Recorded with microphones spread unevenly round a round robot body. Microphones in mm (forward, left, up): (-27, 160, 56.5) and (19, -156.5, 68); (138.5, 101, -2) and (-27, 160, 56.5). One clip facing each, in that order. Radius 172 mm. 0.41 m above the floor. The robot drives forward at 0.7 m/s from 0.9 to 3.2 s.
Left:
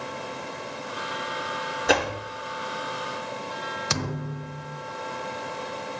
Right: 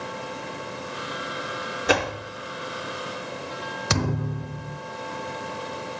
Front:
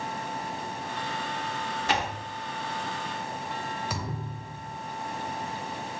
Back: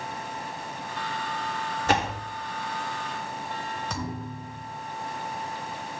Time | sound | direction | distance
1.9 | a door slam | 170° right | 0.8 m
3.9 | a thud | 85° right | 0.6 m